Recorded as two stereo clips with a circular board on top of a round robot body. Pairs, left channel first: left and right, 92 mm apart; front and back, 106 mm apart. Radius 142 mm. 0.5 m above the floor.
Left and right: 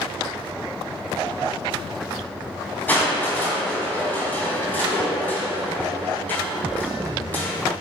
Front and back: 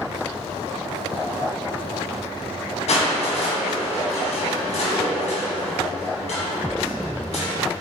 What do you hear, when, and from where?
2.9 s crushing: 20° left, 3 m